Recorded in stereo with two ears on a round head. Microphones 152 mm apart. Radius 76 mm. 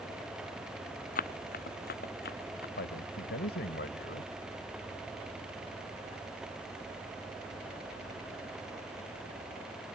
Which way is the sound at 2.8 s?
65° left (ahead or behind).